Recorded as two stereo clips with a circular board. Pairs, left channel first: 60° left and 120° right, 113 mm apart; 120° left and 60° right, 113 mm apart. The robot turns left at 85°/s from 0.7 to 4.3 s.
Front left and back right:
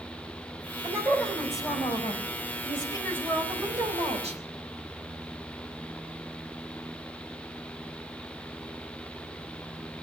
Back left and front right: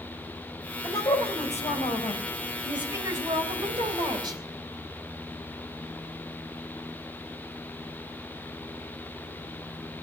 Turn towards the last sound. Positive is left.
turn(degrees=-110)